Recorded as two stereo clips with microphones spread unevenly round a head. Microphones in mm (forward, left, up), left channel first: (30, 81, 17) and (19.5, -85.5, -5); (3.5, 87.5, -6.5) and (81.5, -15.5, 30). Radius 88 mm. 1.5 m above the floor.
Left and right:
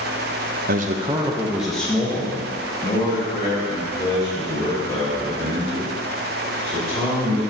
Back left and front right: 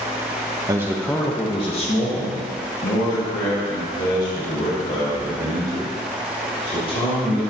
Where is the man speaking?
125° right, 0.5 m; by 7.4 s 145° left, 4 m.